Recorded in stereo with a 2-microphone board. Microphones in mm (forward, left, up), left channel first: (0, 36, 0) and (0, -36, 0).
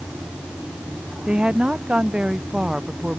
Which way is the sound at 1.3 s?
15° right (ahead or behind).